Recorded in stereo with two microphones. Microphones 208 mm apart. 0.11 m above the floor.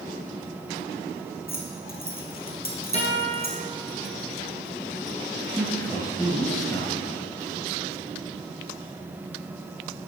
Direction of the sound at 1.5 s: 45° left (ahead or behind).